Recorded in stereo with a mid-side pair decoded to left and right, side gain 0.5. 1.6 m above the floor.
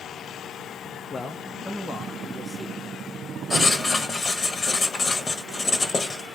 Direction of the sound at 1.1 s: 30° left.